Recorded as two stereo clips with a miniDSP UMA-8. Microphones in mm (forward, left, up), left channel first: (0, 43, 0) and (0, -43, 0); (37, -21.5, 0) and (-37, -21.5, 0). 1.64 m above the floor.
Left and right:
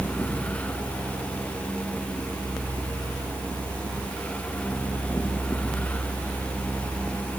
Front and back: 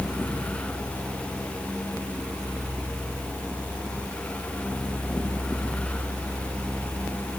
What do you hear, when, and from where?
Only background noise.